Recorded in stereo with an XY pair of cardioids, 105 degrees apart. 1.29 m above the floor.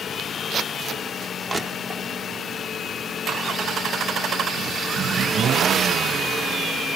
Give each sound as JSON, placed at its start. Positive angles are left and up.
{"t": 1.5, "sound": "crushing", "azimuth_deg": -25, "distance_m": 1.4}